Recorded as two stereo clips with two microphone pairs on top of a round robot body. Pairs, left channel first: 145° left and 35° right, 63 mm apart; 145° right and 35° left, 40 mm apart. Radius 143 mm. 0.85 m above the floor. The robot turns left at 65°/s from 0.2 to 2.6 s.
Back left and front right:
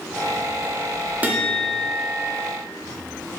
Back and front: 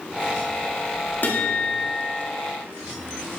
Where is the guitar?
100° right, 2 m; by 2.2 s 165° right, 2 m.